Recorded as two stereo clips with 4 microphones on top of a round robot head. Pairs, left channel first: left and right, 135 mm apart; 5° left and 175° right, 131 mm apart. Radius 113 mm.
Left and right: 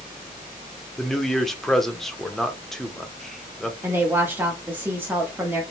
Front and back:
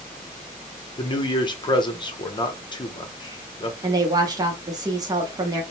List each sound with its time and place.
1.0 s a man speaking: 5° left, 0.8 m
3.8 s a woman speaking: 155° right, 0.7 m